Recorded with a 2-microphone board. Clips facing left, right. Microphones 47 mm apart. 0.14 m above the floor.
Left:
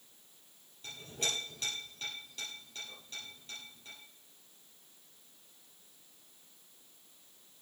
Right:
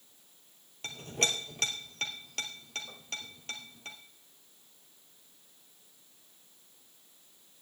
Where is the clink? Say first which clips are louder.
Right 6 dB; 70° right (ahead or behind), 2.5 m.